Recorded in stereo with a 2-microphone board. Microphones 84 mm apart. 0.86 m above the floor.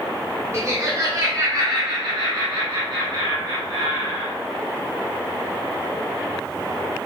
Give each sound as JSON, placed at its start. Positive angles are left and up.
{"t": 0.5, "sound": "laughter", "side_deg": -35, "distance_m": 1.0}